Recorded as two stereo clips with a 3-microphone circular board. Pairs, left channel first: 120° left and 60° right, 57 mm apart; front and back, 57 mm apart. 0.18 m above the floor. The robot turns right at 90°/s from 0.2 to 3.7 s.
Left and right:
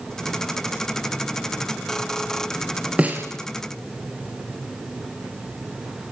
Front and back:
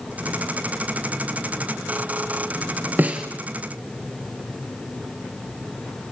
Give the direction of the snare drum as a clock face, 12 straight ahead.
4 o'clock.